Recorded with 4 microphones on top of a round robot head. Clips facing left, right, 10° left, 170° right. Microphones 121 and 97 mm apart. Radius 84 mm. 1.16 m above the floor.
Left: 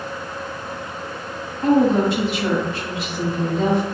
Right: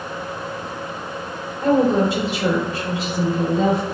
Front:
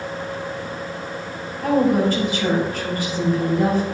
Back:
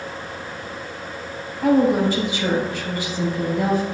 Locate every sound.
1.6 s a woman speaking: 95° right, 3.5 m